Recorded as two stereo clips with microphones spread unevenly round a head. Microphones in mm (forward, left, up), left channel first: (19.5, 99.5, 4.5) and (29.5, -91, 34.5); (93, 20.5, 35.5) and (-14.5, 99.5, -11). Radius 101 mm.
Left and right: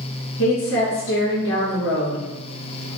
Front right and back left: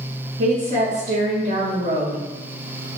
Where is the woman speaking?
115° left, 3 m.